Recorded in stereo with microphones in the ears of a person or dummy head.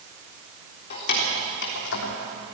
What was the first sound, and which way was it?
Keys jangling, 45° left (ahead or behind).